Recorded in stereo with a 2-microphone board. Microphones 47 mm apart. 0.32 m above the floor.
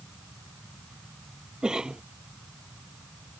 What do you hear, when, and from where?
1.6 s a cough: 15° right (ahead or behind)